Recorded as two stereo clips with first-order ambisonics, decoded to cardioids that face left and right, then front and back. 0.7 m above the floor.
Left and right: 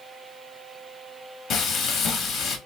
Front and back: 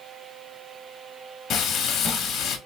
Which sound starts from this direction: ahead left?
Frying, at 1.5 s.